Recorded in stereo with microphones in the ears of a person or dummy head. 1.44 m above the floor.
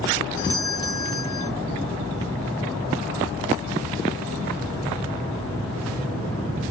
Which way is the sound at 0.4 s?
25° left (ahead or behind).